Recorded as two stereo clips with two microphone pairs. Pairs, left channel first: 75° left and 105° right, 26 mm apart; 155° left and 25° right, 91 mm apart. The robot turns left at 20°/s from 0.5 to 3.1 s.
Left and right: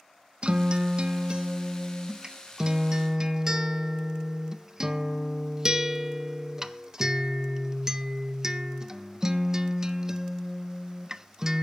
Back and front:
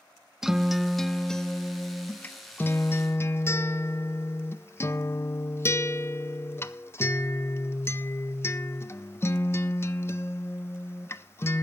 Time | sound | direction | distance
0.4 | a guitar | 110° right | 0.6 m